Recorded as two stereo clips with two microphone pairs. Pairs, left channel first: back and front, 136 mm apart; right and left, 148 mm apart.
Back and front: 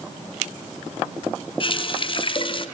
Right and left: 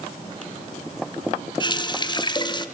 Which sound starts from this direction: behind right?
A running tap, at 1.6 s.